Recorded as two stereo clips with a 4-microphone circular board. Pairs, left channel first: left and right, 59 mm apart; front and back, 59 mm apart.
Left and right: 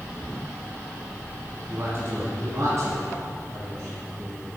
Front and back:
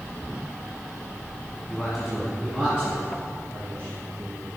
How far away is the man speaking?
About 1.3 m.